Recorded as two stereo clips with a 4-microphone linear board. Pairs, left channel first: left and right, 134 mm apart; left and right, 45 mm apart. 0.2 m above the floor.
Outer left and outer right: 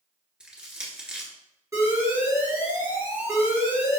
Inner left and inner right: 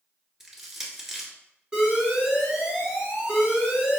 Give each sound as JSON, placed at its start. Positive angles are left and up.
{"t": 0.4, "sound": "crushing", "side_deg": -5, "distance_m": 1.2}
{"t": 1.7, "sound": "an alarm", "side_deg": -20, "distance_m": 2.0}